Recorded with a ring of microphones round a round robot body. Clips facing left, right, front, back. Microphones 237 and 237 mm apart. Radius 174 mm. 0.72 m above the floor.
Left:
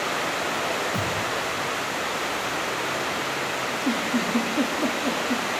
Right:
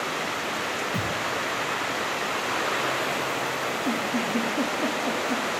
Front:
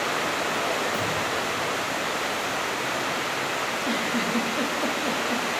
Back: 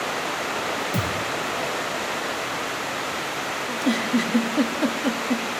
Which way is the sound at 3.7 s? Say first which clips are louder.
Left 3 dB, back 8 dB; 160° left.